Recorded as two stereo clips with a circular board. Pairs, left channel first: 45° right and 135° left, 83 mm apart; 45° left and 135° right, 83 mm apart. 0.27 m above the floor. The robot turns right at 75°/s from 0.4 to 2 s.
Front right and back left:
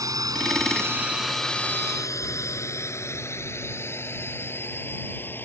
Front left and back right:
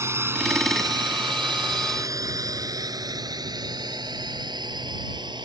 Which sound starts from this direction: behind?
A drone, at 0.0 s.